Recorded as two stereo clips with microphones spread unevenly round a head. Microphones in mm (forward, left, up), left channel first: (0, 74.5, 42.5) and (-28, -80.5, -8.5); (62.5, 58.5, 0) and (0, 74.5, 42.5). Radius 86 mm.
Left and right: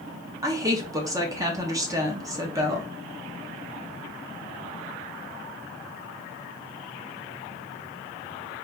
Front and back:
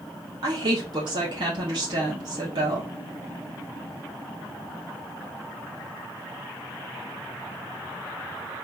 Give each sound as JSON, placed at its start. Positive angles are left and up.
{"t": 0.4, "sound": "a woman speaking", "azimuth_deg": -145, "distance_m": 0.9}